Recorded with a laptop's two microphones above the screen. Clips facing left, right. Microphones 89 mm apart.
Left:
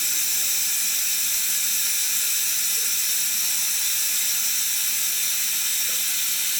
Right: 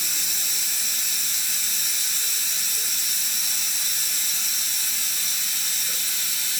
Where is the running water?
15° right (ahead or behind), 1.0 m.